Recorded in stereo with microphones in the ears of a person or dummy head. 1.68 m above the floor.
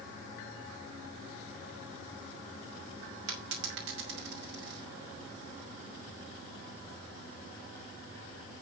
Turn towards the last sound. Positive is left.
turn(degrees=-55)  # may be behind; listen again after turning